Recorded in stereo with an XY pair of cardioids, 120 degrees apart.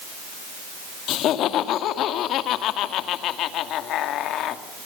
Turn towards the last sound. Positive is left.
turn(degrees=70)